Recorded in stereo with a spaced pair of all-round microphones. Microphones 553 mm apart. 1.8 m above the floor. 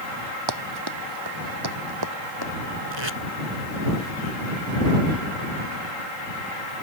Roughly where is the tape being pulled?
Right.